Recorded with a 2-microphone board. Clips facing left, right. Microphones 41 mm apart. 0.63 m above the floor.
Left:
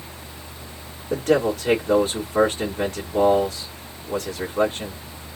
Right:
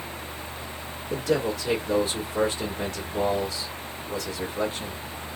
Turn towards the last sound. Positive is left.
turn(degrees=50)  # may be behind; listen again after turning